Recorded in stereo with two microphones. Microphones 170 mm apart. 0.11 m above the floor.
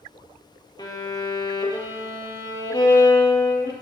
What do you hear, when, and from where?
0.8 s a violin: 25° left (ahead or behind), 2 m